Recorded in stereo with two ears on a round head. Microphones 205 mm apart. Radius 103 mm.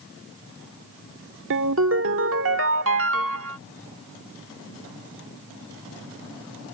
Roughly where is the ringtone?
Right.